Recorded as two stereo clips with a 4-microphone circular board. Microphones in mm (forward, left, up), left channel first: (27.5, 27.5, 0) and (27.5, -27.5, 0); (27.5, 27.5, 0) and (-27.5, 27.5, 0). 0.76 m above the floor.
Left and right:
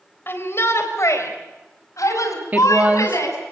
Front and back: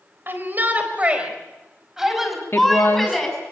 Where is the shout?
135° left, 3.5 m; by 3.4 s 85° left, 6.5 m.